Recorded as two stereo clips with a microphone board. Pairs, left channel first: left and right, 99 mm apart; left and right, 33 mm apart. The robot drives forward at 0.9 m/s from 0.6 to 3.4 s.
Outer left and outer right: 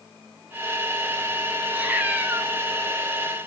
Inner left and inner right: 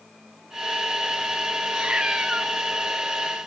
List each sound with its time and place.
1.7 s a cat meowing: 15° right (ahead or behind), 3 m; by 2.5 s 20° right (ahead or behind), 2.5 m